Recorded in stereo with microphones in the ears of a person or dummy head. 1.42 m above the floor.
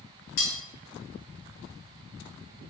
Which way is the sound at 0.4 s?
50° left (ahead or behind).